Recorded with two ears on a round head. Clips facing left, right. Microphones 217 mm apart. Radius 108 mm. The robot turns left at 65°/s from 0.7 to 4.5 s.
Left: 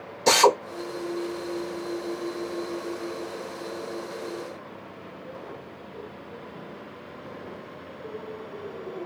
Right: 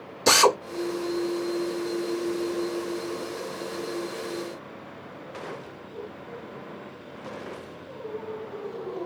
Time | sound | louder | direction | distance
0.3 | a drill | left 1 dB | 15° right (ahead or behind) | 0.9 m